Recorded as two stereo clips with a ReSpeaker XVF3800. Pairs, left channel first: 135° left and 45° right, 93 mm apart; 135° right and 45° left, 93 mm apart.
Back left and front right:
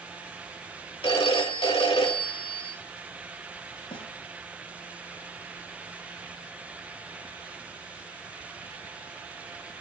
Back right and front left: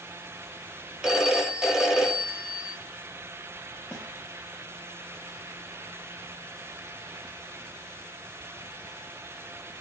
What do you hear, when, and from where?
1.0 s a phone ringing: 130° left, 3 m
3.9 s a snare drum: 140° left, 4 m